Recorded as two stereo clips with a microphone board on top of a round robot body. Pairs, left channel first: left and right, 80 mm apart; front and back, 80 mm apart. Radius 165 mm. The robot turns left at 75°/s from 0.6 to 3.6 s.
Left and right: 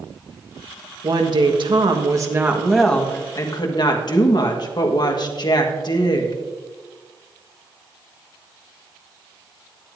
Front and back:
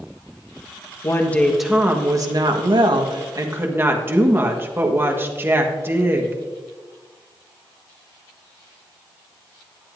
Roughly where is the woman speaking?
Ahead right.